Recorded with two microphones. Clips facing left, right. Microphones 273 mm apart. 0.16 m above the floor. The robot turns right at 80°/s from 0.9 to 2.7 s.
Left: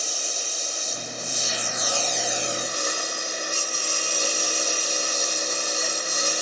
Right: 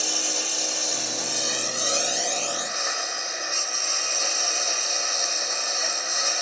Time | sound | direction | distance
0.0 | a lawn mower | 105° right | ?